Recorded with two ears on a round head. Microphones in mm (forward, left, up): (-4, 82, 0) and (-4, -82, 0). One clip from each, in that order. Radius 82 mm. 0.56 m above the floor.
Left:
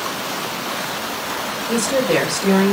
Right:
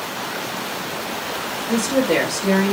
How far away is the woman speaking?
About 3 m.